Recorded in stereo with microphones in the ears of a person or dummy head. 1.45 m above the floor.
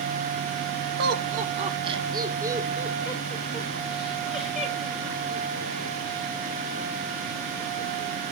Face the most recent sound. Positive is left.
turn(degrees=5)  # may be behind; listen again after turning